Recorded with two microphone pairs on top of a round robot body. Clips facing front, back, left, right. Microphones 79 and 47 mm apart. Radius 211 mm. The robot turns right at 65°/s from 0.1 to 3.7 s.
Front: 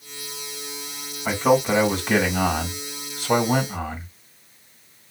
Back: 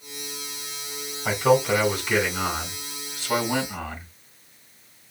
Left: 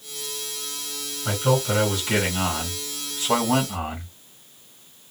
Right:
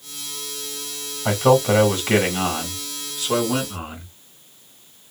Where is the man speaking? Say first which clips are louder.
Front 1 dB, right 6 dB; 95° right, 1.8 m; by 4.1 s 65° left, 1.8 m.